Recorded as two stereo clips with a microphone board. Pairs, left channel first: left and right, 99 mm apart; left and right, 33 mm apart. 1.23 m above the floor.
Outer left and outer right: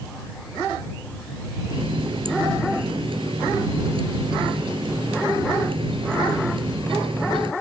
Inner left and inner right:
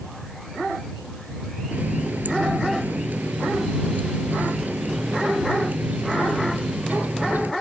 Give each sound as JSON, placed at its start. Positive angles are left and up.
{"t": 1.7, "sound": "a running tap", "side_deg": -70}